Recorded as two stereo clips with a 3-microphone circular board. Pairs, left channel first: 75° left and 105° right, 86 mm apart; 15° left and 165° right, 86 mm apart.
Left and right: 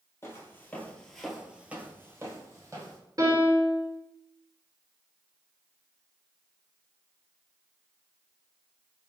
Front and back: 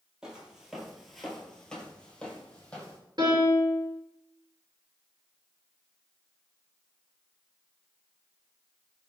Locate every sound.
0.2 s footsteps: 120° left, 0.9 m; by 3.0 s 60° right, 1.3 m
3.2 s a piano: 140° right, 1.2 m